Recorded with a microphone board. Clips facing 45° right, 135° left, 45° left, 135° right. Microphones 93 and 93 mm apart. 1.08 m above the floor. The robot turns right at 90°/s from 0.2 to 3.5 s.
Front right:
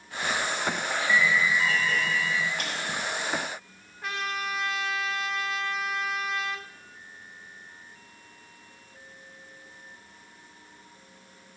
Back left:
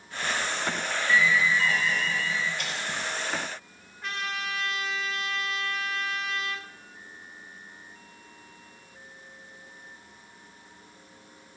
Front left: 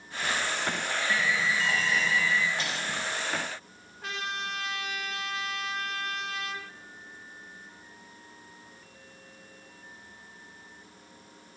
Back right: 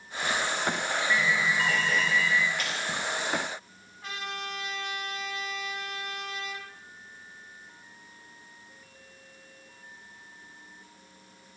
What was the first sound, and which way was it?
An alarm, 165° right.